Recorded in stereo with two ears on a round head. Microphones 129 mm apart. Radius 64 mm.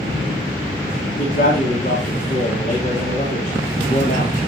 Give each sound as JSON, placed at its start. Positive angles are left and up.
{"t": 1.2, "sound": "a man speaking", "side_deg": 55, "distance_m": 2.5}